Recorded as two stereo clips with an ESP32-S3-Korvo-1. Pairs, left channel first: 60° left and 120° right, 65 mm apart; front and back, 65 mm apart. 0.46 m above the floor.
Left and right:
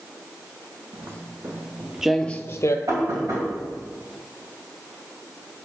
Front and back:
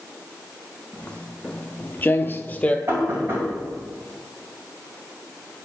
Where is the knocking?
135° right, 2.5 m.